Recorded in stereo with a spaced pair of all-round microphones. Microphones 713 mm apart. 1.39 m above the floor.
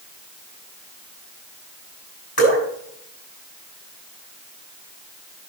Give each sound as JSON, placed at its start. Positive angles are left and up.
{"t": 2.4, "sound": "dripping", "side_deg": 20, "distance_m": 6.0}